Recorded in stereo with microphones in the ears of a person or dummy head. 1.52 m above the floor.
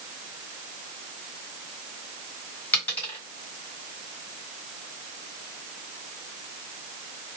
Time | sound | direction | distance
2.7 | a dropped coin | 10° left (ahead or behind) | 1.9 m